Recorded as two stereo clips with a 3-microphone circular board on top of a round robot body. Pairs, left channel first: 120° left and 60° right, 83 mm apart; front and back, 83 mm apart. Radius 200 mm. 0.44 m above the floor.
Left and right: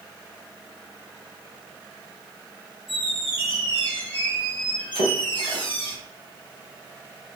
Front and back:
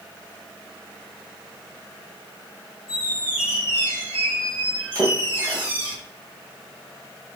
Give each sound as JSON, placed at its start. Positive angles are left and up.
{"t": 2.9, "sound": "a squeak", "azimuth_deg": 105, "distance_m": 2.5}
{"t": 5.0, "sound": "a splash", "azimuth_deg": 130, "distance_m": 1.9}